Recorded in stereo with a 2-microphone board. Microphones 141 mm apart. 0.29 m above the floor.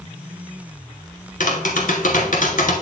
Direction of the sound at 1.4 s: 65° left (ahead or behind).